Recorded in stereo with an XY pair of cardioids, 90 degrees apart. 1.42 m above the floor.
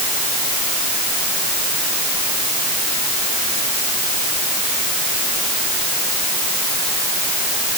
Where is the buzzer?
I don't hear a buzzer.